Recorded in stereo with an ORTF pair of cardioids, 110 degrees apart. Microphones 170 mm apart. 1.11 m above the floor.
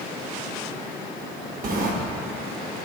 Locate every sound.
1.6 s a sliding door: 55° right, 1.0 m